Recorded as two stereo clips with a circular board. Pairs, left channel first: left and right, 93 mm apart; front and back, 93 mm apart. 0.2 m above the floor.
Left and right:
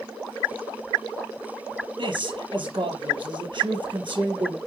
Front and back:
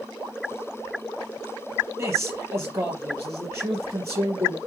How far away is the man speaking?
About 4.5 m.